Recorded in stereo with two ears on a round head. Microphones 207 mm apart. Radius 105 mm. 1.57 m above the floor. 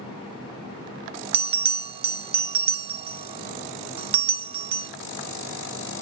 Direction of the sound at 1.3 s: 25° right (ahead or behind).